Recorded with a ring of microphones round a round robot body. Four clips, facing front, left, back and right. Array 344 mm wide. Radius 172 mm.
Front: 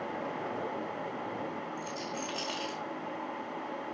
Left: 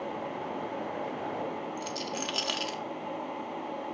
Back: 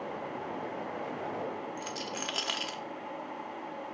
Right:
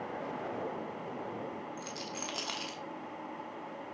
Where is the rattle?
170° left, 1.2 m.